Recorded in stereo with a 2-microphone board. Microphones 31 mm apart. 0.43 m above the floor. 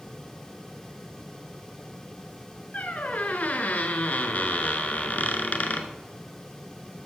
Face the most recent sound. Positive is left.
turn(degrees=55)  # may be behind; listen again after turning